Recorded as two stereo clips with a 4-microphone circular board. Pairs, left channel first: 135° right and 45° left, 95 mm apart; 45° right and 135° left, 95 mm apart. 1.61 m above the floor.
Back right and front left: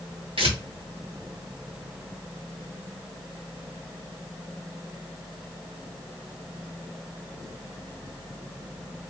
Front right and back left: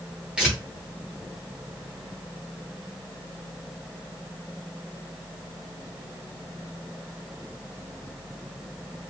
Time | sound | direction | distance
0.4 | tearing paper | 55° left | 0.9 m